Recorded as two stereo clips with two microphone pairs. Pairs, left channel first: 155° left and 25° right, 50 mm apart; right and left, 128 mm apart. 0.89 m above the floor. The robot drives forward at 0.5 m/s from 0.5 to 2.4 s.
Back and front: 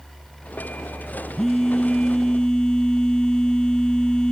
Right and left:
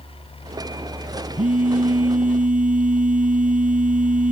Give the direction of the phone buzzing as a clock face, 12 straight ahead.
9 o'clock.